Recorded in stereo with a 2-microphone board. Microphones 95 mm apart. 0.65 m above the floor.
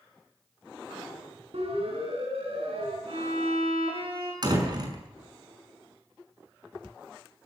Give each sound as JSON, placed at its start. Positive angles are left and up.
{"t": 1.5, "sound": "a siren", "side_deg": -80, "distance_m": 8.0}
{"t": 3.1, "sound": "a violin", "side_deg": -70, "distance_m": 7.5}
{"t": 4.4, "sound": "a door slam", "side_deg": -45, "distance_m": 6.0}